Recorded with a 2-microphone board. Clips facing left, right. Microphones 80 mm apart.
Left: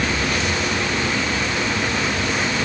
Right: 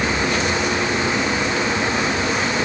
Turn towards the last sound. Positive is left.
No sound to turn to.